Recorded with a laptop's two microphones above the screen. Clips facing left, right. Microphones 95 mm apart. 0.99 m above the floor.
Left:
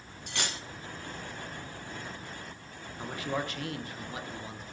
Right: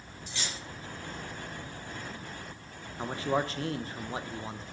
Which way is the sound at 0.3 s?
65° left (ahead or behind).